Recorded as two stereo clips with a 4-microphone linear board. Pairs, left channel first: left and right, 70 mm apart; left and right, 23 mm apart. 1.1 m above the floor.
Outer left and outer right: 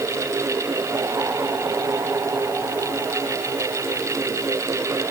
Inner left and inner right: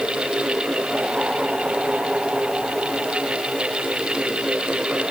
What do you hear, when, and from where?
Only background noise.